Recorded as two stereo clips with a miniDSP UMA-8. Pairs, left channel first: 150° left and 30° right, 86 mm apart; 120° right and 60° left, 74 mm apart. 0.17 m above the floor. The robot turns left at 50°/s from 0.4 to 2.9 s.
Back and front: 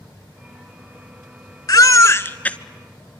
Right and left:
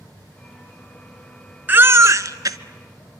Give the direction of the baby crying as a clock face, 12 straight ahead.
8 o'clock.